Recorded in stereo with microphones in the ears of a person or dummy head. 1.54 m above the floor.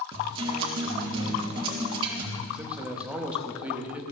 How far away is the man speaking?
About 1.1 m.